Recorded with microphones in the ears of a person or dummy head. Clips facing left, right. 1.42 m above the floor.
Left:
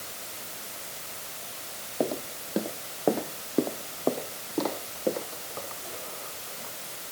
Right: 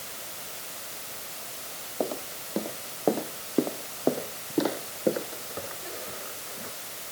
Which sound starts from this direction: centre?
Footsteps, at 2.0 s.